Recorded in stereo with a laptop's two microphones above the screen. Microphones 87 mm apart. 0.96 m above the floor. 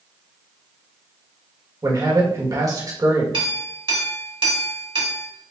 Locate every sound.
1.8 s a man speaking: 40° right (ahead or behind), 1.6 m
3.3 s a clink: 80° right, 2 m